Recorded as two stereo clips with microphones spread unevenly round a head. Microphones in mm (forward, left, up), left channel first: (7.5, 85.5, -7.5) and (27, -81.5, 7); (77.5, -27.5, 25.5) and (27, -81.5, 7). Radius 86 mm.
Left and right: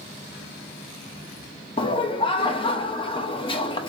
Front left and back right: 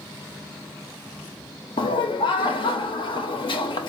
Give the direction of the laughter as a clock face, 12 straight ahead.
11 o'clock.